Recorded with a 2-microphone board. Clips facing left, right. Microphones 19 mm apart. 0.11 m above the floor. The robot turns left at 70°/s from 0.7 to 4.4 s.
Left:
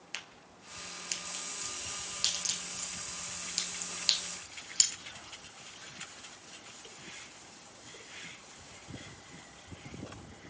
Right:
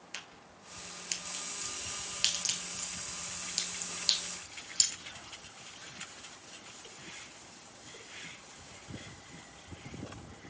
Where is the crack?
20° left (ahead or behind), 1.0 m; by 4.9 s 40° left (ahead or behind), 1.0 m.